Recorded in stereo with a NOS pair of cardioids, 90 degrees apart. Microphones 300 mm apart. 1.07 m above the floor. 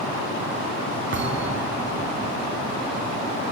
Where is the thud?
40° right, 3.5 m.